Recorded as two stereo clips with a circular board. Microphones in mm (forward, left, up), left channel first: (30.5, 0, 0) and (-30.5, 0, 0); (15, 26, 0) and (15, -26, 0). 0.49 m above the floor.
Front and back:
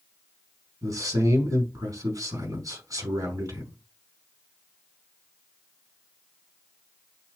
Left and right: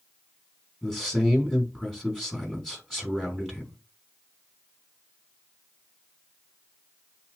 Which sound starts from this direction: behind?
A man speaking, at 0.8 s.